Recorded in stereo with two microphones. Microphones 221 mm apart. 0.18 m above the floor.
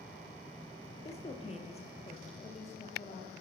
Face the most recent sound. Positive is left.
turn(degrees=30)  # may be behind; listen again after turning